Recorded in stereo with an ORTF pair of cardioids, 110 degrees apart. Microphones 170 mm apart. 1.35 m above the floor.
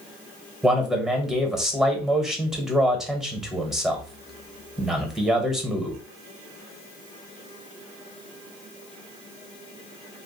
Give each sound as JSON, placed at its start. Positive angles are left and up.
{"t": 0.6, "sound": "a man speaking", "azimuth_deg": -5, "distance_m": 1.1}